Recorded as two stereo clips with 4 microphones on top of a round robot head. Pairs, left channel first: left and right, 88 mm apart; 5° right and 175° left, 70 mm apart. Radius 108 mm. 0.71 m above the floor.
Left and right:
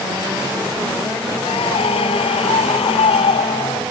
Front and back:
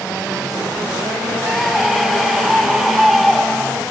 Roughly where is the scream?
Left.